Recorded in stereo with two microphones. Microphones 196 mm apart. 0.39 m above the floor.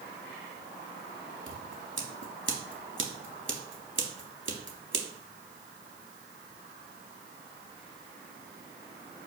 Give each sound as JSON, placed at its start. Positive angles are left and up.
{"t": 1.5, "sound": "scissors", "side_deg": -85, "distance_m": 0.6}